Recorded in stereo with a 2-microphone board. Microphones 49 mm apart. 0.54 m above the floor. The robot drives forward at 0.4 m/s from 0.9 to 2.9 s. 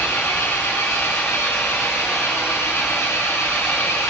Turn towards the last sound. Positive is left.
turn(degrees=80)